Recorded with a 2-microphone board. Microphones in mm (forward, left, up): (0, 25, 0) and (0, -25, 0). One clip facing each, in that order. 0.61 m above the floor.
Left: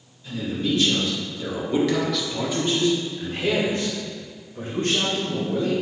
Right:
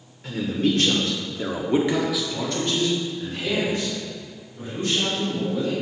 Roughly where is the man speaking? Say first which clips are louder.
Right 3 dB; right.